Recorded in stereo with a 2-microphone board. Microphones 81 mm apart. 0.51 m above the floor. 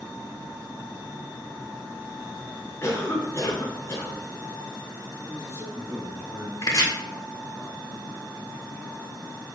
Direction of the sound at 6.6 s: 45° left (ahead or behind).